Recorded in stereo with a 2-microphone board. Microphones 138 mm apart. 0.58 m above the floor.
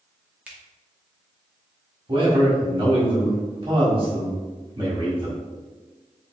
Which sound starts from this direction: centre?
A finger snap, at 0.5 s.